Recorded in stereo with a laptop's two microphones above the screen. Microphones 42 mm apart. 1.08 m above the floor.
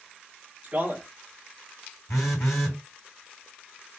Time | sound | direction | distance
0.6 | a man speaking | 30° right (ahead or behind) | 1.1 m
2.1 | a phone buzzing | 75° left (ahead or behind) | 2.5 m